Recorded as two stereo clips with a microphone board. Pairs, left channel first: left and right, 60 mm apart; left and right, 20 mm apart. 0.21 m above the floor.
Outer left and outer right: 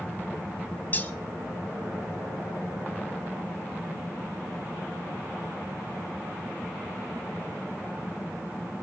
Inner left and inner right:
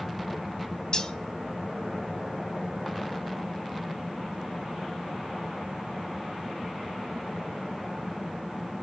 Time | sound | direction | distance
0.9 | cutlery clinking | 30° left (ahead or behind) | 0.7 m